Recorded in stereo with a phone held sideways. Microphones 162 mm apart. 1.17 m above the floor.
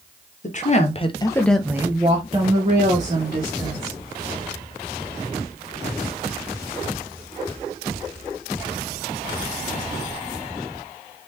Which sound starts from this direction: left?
A woman speaking, at 0.4 s.